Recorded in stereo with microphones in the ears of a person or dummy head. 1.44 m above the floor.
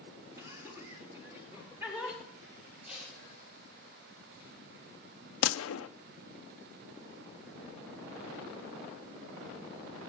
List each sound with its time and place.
0.4 s laughter: 15° right (ahead or behind), 3.5 m; by 2.2 s centre (ahead or behind), 5.5 m
2.9 s tape being pulled: 5° right (ahead or behind), 6.5 m
5.4 s a gunshot: 75° left (ahead or behind), 0.8 m